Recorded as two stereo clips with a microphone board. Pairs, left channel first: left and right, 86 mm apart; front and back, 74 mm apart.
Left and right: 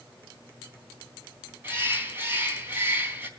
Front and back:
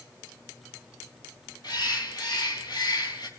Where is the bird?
25° right, 3.5 m.